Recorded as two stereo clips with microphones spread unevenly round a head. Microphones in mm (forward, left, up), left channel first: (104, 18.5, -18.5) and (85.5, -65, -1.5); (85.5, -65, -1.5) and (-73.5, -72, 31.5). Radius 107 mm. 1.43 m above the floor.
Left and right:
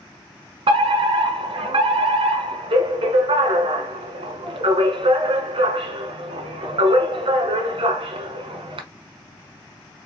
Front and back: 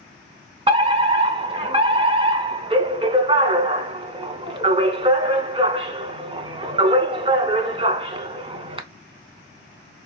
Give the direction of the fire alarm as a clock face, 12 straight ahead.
4 o'clock.